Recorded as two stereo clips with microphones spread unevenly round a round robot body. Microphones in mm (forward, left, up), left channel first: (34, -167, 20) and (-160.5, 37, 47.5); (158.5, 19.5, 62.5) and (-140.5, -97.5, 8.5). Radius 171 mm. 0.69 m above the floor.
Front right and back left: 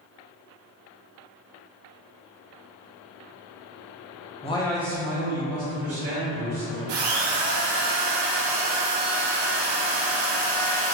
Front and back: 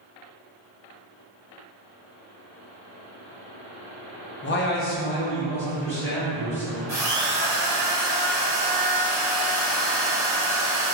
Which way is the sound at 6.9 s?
120° left.